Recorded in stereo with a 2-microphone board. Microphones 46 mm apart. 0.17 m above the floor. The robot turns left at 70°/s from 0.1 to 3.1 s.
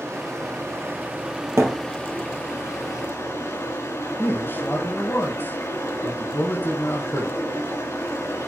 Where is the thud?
65° right (ahead or behind), 2 m; by 1.8 s 75° right (ahead or behind), 2 m.